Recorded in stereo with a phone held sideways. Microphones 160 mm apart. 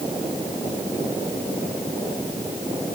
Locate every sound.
Only background noise.